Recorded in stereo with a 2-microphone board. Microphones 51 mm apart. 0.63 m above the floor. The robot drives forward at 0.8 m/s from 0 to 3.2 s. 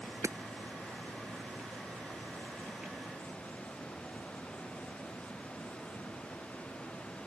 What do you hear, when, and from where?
0.2 s hammering: 75° right (ahead or behind)